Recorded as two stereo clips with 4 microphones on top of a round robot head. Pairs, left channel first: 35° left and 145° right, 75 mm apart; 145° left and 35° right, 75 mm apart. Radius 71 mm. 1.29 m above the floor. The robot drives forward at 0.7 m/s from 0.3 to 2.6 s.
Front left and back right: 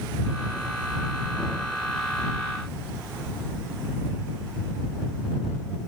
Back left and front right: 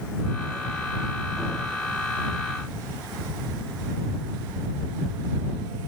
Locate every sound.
Only background noise.